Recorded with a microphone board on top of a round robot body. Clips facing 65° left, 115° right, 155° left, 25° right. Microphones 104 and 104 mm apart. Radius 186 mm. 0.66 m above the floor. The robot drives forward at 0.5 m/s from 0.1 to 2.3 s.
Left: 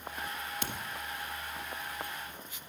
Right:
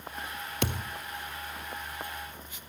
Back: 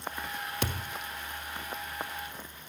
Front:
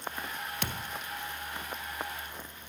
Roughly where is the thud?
Behind right.